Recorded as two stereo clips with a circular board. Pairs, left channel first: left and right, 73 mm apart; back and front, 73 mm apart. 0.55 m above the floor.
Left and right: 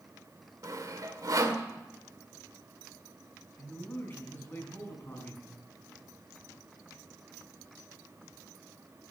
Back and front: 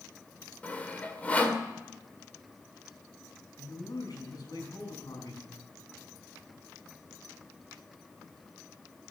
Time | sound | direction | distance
0.6 | sawing | 115° right | 1.8 m
3.6 | a man speaking | 155° left | 5.5 m